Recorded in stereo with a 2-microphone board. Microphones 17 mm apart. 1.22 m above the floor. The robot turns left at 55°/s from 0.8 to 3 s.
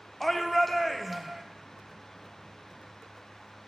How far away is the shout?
About 0.5 m.